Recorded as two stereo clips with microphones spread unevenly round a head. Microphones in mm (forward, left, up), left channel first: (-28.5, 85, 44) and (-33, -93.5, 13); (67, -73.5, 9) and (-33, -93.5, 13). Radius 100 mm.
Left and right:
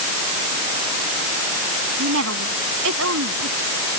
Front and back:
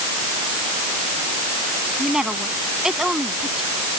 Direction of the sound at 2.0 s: 85° right.